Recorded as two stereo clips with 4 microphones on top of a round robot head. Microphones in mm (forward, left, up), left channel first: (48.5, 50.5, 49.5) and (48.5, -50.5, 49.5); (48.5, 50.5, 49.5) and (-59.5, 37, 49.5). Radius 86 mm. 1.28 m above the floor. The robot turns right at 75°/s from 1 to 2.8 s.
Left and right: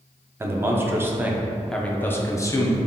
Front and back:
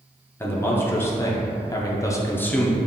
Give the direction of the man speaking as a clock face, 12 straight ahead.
1 o'clock.